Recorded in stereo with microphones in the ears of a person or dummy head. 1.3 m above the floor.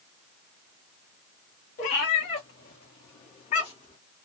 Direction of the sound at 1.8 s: 45° left (ahead or behind).